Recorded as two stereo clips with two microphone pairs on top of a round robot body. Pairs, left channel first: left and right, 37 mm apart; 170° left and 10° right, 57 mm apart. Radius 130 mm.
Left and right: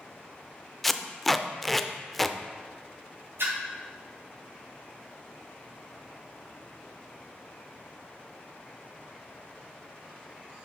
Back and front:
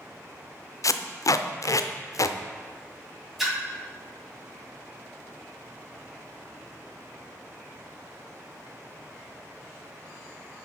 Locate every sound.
0.8 s tape being pulled: 175° left, 0.5 m
3.4 s a splash: 95° right, 2.5 m